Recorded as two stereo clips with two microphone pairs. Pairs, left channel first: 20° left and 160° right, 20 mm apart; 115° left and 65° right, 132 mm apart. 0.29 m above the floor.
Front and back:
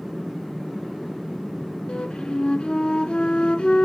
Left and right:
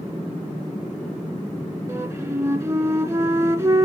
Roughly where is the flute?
Ahead.